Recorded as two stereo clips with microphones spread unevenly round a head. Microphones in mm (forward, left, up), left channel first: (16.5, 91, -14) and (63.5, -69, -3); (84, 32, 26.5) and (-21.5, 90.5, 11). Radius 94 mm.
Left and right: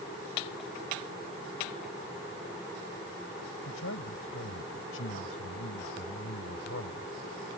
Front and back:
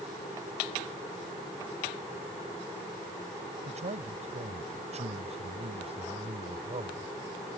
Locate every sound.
3.6 s a man speaking: 120° left; by 7.1 s 110° left